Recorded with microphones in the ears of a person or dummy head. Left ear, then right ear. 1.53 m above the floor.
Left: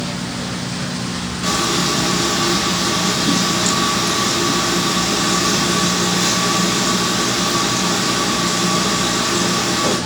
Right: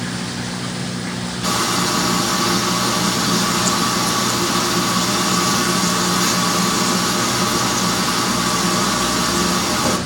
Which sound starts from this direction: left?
Frying, at 1.4 s.